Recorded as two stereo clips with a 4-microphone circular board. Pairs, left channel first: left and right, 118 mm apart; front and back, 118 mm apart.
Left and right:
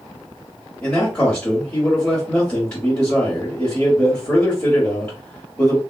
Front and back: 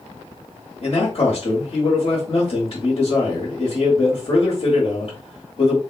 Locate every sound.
0.8 s a man speaking: 25° left, 1.3 m